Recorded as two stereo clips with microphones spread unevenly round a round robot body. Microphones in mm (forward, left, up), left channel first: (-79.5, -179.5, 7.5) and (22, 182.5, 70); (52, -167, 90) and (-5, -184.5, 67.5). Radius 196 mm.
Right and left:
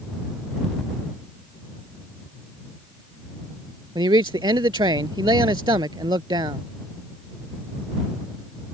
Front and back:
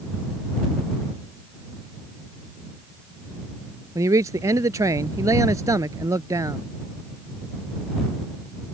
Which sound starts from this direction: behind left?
A man speaking, at 4.0 s.